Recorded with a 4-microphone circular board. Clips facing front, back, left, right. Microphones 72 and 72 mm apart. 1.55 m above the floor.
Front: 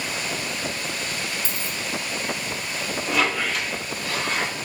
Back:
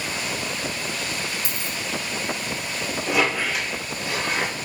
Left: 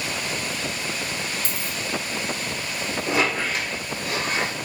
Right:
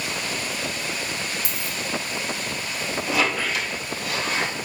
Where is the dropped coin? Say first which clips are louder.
Even, even; 125° right, 1.5 m.